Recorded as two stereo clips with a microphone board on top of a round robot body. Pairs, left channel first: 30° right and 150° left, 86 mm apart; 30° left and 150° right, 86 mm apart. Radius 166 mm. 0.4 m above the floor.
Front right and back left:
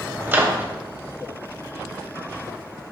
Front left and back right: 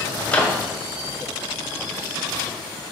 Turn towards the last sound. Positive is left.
turn(degrees=95)